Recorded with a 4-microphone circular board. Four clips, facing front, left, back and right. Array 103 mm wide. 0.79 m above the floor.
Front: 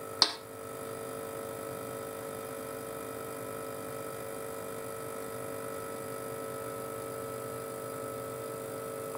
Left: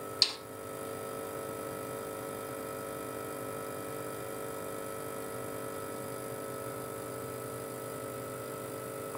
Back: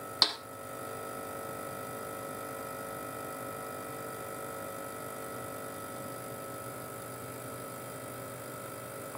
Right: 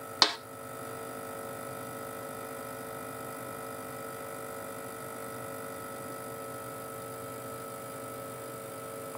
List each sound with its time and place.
0.2 s a snare drum: 80° right, 1.2 m